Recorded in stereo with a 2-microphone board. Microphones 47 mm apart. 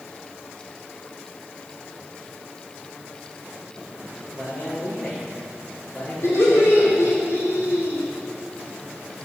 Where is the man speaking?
10° left (ahead or behind), 5.5 m.